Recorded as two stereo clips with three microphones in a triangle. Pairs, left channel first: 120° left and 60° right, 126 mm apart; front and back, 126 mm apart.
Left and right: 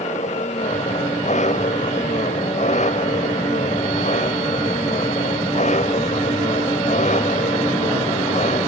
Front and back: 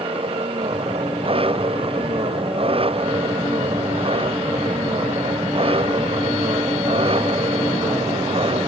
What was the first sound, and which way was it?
An engine running, 140° left.